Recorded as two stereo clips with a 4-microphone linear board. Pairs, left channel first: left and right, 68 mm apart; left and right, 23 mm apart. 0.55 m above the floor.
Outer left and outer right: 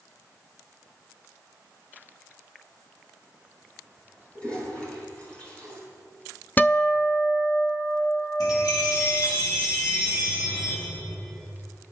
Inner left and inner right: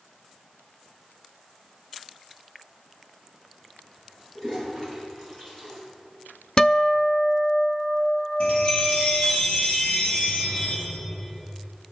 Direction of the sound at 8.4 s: 70° left (ahead or behind).